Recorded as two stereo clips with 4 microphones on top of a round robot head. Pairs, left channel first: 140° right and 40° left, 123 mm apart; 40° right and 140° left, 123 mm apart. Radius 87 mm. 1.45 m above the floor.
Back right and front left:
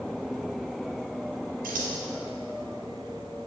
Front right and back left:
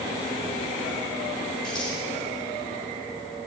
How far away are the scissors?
About 3.5 m.